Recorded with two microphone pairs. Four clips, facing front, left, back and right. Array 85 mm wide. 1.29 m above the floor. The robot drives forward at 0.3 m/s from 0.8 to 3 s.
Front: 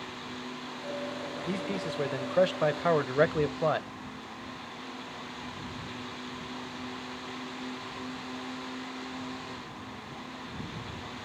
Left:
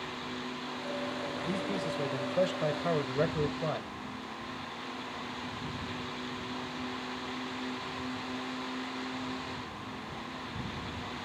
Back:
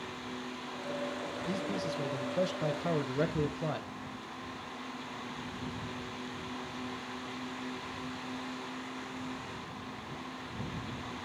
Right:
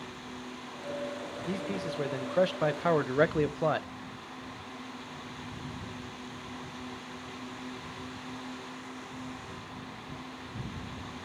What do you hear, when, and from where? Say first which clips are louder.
1.5 s a man speaking: right 1 dB, front 2 dB; 20° right, 0.9 m; by 3.9 s 35° right, 0.5 m